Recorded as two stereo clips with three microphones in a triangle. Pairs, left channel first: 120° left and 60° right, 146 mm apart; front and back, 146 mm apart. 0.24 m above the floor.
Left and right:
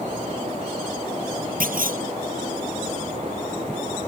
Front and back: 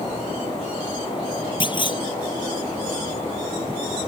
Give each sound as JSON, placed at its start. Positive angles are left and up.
{"t": 1.6, "sound": "a clunk", "azimuth_deg": -55}